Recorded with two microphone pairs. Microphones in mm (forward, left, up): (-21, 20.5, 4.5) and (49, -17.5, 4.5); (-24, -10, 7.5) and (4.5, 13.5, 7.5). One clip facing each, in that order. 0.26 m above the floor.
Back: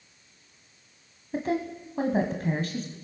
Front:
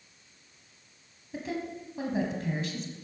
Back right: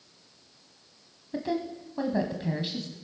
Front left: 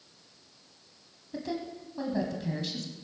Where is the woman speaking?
165° left, 1.4 m.